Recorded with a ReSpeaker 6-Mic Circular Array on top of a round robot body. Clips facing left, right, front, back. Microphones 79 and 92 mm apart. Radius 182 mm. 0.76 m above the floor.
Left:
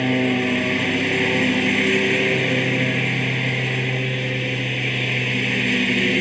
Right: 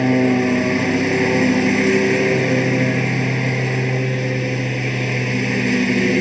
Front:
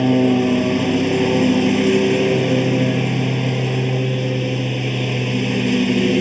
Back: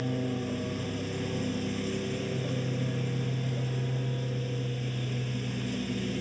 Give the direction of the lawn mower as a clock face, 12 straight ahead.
1 o'clock.